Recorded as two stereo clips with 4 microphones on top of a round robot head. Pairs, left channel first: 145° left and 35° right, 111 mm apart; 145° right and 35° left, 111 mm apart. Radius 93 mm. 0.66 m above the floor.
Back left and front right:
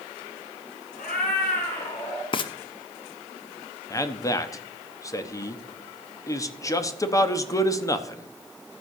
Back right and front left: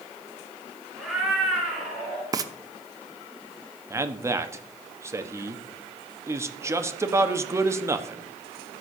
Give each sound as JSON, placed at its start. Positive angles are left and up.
{"t": 1.0, "sound": "a cat meowing", "azimuth_deg": 125, "distance_m": 4.0}
{"t": 2.3, "sound": "frying", "azimuth_deg": 95, "distance_m": 0.7}
{"t": 3.9, "sound": "a man speaking", "azimuth_deg": 95, "distance_m": 1.1}